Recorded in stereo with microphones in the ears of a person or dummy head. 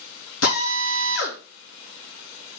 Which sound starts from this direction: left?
A drill, at 0.4 s.